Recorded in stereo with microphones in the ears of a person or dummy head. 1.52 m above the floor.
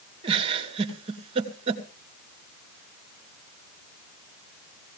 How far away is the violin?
I don't hear a violin.